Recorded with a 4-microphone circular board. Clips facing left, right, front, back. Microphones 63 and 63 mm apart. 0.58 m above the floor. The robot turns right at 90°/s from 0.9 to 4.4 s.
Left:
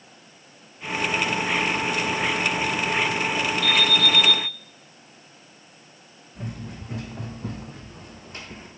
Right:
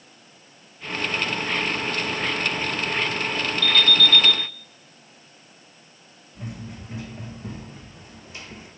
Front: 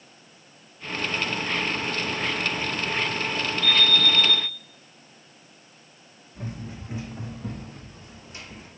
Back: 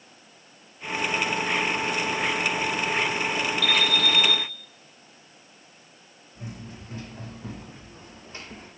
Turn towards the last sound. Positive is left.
turn(degrees=140)